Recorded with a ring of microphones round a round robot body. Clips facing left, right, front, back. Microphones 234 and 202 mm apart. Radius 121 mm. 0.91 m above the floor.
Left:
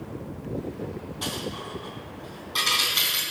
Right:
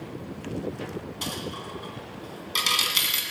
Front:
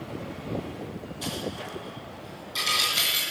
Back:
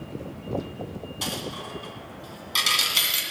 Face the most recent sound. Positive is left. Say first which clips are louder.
# left 1 dB, front 2 dB
turn(degrees=-140)